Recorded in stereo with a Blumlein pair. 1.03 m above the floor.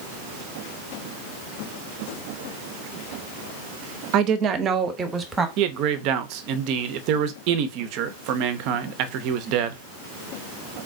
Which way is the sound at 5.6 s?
40° right.